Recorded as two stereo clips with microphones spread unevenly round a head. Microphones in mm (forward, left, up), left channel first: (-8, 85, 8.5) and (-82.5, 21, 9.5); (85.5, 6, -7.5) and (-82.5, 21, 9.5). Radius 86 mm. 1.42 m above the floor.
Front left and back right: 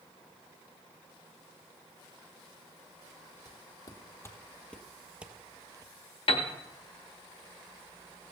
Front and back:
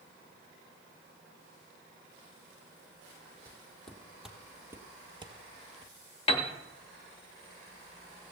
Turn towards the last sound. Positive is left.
turn(degrees=50)